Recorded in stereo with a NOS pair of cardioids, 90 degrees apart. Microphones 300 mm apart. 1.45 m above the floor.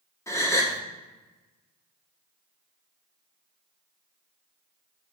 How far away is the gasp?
About 1.5 m.